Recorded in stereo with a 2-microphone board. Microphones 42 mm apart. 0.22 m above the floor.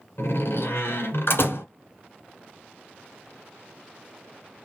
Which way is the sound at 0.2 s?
60° left (ahead or behind).